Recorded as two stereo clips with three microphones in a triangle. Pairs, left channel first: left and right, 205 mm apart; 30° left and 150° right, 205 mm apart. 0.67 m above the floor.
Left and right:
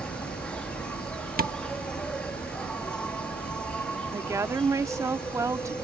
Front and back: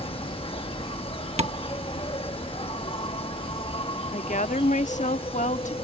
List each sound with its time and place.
0.0 s an insect: 10° left
1.4 s tapping: 105° right
4.1 s a woman speaking: 20° right